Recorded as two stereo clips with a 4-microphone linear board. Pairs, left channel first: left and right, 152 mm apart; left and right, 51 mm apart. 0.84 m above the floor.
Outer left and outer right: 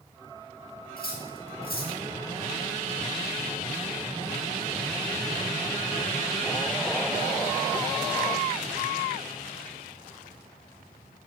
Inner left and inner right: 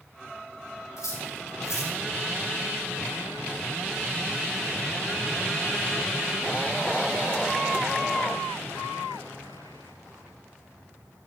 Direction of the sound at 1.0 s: 75° left (ahead or behind).